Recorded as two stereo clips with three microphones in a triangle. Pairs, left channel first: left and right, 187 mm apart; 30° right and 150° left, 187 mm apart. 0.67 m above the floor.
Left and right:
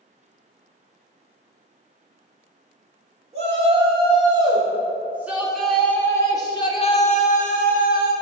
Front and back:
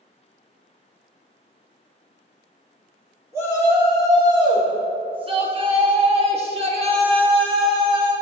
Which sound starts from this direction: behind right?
A shout, at 3.3 s.